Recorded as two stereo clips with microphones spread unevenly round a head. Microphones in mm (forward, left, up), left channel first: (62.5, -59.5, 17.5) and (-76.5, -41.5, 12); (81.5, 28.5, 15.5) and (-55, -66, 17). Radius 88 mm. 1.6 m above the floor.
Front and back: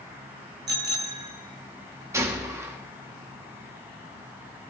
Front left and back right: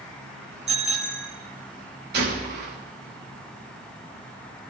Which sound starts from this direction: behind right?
A gunshot, at 2.1 s.